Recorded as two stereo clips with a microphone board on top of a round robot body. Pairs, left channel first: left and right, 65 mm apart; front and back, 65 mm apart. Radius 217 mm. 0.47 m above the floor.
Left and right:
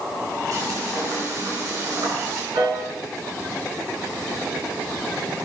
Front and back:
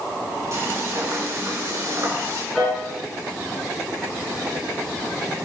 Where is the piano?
85° right, 7 m.